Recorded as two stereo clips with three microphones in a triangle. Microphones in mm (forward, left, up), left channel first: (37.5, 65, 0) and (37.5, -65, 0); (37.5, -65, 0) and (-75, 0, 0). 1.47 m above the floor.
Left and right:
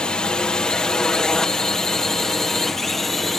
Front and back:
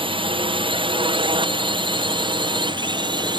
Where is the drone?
175° left; by 3.4 s straight behind.